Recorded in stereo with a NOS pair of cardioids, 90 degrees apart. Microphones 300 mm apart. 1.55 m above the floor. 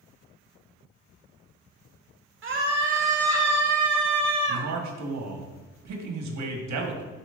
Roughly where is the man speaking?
Ahead right.